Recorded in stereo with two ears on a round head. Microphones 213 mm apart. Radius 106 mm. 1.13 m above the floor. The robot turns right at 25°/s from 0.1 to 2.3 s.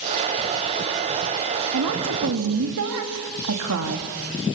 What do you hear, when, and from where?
1.7 s a woman speaking: 75° right (ahead or behind), 2.5 m; by 4.1 s 70° right (ahead or behind), 2.5 m